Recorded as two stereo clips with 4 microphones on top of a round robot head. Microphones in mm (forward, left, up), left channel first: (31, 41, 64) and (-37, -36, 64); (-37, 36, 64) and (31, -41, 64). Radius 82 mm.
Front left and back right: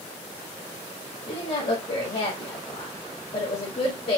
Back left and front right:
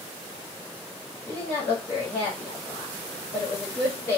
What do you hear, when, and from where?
1.3 s a woman speaking: 65° left, 2 m